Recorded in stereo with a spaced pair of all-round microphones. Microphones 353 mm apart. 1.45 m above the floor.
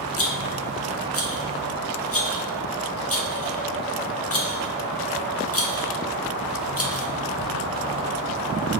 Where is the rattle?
40° left (ahead or behind), 0.7 m.